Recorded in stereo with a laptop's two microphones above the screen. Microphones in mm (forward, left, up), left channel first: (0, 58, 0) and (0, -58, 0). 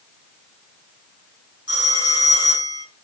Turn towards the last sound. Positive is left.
turn(degrees=-45)  # may be behind; listen again after turning